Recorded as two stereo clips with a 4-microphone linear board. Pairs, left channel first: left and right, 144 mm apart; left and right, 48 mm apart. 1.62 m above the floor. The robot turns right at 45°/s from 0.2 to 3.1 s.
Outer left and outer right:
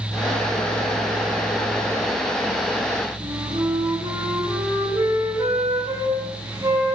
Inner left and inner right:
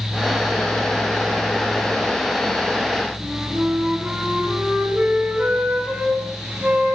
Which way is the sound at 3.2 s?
20° right (ahead or behind).